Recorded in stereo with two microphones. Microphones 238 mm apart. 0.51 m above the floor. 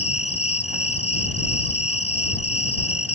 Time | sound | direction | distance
0.0 | an insect | 75° left (ahead or behind) | ?